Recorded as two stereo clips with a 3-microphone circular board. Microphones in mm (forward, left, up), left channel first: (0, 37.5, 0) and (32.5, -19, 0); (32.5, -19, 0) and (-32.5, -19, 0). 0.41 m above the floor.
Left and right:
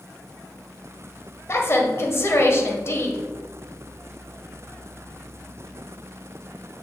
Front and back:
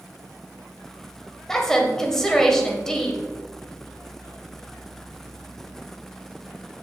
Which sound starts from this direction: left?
A woman speaking, at 1.5 s.